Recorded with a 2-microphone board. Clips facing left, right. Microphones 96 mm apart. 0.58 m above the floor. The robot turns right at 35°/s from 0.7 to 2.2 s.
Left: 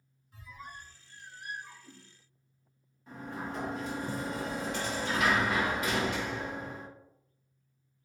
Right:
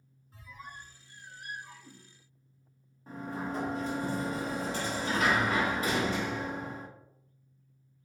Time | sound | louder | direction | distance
0.3 | a squeak | even | 30° right (ahead or behind) | 0.9 m
3.1 | a sliding door | right 3 dB | 35° right (ahead or behind) | 1.0 m